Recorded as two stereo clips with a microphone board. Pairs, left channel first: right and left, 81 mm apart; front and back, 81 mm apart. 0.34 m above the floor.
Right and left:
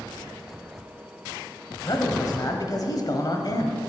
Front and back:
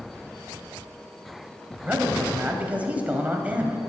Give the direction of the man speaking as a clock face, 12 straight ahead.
4 o'clock.